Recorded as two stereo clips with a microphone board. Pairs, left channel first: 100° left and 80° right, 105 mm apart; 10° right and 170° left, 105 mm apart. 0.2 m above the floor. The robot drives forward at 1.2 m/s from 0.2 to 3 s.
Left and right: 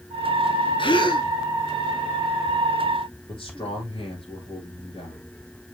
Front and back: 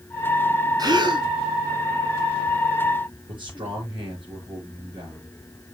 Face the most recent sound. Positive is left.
turn(degrees=135)